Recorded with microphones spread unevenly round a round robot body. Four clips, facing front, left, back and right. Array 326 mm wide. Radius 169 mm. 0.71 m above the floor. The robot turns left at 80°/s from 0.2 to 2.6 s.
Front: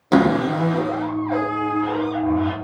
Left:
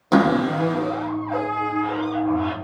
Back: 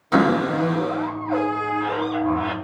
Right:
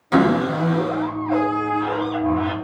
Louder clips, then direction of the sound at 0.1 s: Even, front 2 dB; 25° left.